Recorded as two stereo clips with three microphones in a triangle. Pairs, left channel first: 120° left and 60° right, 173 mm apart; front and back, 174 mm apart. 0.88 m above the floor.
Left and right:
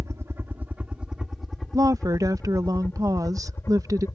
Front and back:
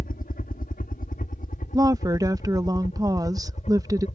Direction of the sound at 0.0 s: 10° left.